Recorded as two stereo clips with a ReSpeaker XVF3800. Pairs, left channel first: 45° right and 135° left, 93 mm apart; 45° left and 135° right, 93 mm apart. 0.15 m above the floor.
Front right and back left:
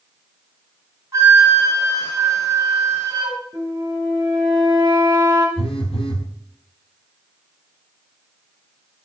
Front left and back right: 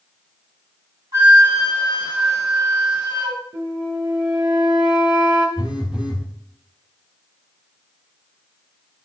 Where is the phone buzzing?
55° right, 1.8 m.